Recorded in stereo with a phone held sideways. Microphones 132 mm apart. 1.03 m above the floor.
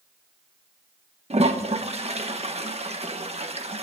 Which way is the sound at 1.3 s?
55° right (ahead or behind).